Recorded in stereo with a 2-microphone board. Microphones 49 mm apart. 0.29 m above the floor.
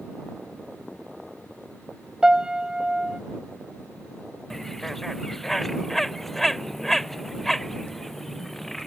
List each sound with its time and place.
2.2 s a piano: 15° right (ahead or behind)
4.5 s a bird: 5° left (ahead or behind)